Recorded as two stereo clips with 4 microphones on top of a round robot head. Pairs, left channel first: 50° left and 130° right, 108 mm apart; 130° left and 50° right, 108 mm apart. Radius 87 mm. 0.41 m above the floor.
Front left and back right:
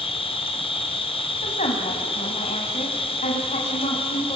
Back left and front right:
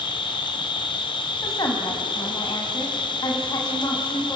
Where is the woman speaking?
70° left, 3 m.